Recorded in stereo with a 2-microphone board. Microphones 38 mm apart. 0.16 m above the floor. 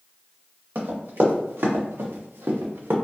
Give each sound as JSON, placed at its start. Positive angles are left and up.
{"t": 0.8, "sound": "running footsteps", "side_deg": -60, "distance_m": 1.8}